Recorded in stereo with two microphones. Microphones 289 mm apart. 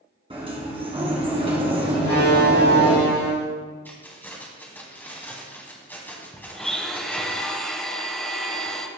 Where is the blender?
Centre (ahead or behind), 0.9 m.